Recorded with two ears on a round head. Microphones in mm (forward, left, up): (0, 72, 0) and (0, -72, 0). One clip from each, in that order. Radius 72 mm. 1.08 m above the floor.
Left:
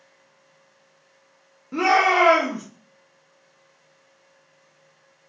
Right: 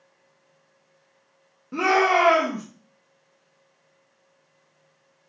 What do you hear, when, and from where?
1.7 s a shout: 10° left (ahead or behind), 0.6 m